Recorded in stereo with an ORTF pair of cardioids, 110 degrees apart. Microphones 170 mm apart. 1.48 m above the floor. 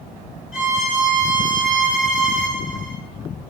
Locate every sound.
0.5 s a violin: 5° right, 1.9 m